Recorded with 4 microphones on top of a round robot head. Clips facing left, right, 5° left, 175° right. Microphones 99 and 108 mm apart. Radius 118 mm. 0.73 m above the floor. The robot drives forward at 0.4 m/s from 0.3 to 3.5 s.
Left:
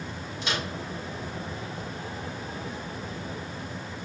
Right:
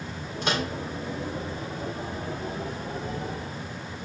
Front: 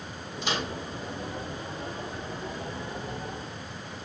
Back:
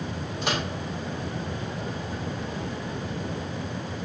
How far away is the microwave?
About 3.5 m.